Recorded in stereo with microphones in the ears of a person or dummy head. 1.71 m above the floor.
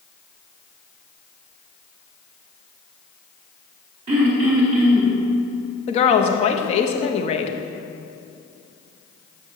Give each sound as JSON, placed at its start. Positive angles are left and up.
{"t": 4.1, "sound": "throat clearing", "side_deg": -35, "distance_m": 0.8}
{"t": 5.9, "sound": "a woman speaking", "side_deg": 30, "distance_m": 0.6}